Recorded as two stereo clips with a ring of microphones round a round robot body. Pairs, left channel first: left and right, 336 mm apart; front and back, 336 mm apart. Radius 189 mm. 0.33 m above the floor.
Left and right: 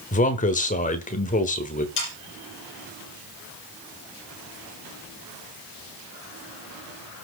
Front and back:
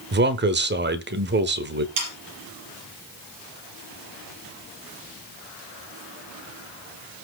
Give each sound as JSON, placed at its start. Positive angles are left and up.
{"t": 0.1, "sound": "a man speaking", "azimuth_deg": 145, "distance_m": 1.3}
{"t": 2.0, "sound": "sawing", "azimuth_deg": 150, "distance_m": 5.5}